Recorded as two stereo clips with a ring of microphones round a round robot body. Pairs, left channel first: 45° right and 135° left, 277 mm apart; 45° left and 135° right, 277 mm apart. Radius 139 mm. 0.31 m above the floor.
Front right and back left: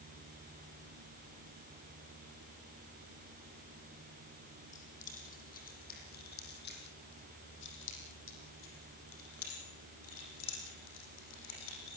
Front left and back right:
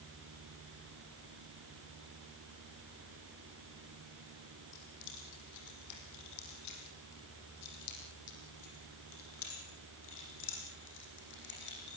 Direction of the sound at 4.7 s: 20° left.